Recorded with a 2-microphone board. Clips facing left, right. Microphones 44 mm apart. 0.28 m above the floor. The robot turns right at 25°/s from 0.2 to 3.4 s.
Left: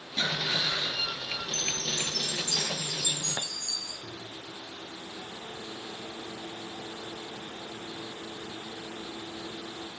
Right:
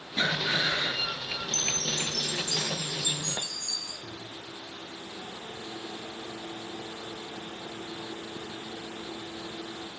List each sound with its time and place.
0.2 s breathing: 20° right (ahead or behind), 2.5 m; by 1.1 s 45° right (ahead or behind), 2.5 m
1.5 s a chime: 35° left, 4 m; by 3.9 s 80° left, 4 m
4.0 s a microwave: 35° right (ahead or behind), 6 m